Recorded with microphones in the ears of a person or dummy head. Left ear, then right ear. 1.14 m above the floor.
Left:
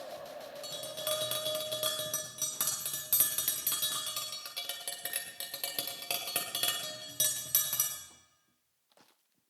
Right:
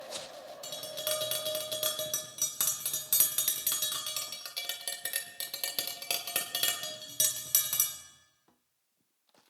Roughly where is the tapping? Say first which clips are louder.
Right 1 dB; centre.